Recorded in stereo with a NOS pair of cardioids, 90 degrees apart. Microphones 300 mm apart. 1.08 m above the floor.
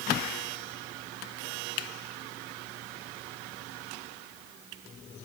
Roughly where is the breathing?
No breathing in this recording.